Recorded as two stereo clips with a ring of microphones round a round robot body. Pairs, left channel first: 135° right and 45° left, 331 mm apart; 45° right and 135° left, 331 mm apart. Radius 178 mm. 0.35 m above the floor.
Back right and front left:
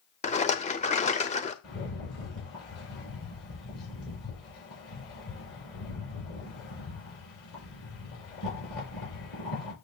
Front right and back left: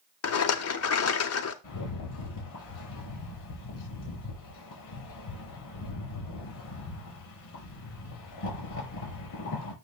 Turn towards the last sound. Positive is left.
turn(degrees=-85)